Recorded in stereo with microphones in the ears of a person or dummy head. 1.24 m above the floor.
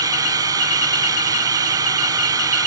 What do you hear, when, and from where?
0.0 s a drone: 20° right (ahead or behind)